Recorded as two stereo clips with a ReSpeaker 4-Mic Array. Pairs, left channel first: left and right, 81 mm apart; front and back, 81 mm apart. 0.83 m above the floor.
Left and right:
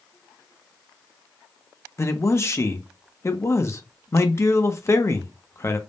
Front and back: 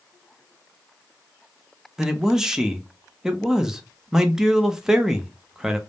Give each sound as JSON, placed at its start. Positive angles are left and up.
{"t": 2.0, "sound": "a man speaking", "azimuth_deg": 100, "distance_m": 0.6}